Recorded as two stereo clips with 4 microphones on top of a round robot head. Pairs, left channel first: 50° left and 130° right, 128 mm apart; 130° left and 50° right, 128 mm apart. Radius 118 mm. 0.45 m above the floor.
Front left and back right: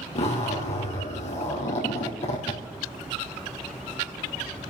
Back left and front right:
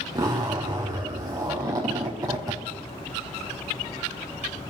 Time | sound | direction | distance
0.1 | a zipper | 10° left | 3.5 m